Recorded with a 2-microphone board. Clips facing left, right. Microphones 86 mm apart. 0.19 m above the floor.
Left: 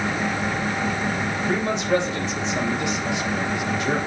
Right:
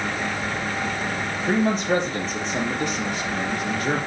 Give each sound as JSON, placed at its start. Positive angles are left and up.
{"t": 1.5, "sound": "a man speaking", "side_deg": -45, "distance_m": 4.0}